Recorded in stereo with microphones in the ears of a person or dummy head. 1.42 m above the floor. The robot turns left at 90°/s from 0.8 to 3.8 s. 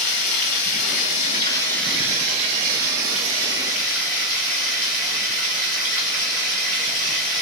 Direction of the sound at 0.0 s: 100° left.